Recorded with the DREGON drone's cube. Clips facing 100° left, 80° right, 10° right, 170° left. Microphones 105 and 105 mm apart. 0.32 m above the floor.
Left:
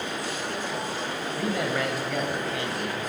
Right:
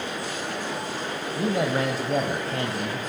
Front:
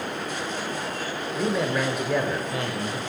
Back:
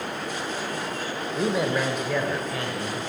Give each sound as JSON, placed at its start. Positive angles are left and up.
{"t": 1.4, "sound": "a man speaking", "azimuth_deg": -130, "distance_m": 1.0}